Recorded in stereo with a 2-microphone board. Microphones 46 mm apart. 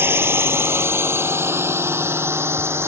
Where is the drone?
65° right (ahead or behind); by 2.9 s 70° right (ahead or behind).